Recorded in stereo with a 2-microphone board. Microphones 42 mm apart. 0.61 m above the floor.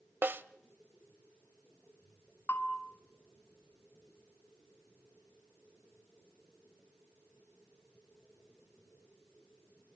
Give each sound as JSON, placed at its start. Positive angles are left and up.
{"t": 0.2, "sound": "a snare drum", "side_deg": -55, "distance_m": 0.5}
{"t": 2.5, "sound": "a bell", "side_deg": 55, "distance_m": 1.9}